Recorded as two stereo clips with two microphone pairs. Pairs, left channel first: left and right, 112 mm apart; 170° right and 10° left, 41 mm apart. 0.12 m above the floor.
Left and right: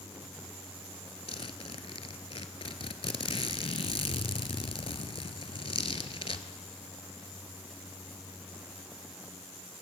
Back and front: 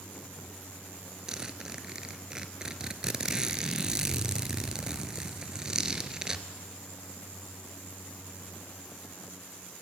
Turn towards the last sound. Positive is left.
turn(degrees=80)